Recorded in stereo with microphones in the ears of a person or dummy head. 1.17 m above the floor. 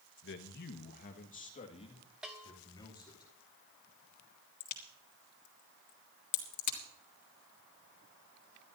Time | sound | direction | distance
0.2 | a man speaking | 65° left (ahead or behind) | 1.3 m
2.2 | a bell | centre (ahead or behind) | 0.8 m
4.6 | a crack | 50° left (ahead or behind) | 2.5 m